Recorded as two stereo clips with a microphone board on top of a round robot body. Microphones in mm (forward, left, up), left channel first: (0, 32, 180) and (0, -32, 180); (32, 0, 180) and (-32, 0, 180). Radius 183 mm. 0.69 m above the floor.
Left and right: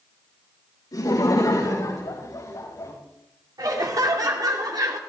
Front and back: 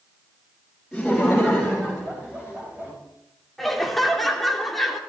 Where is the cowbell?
I don't hear a cowbell.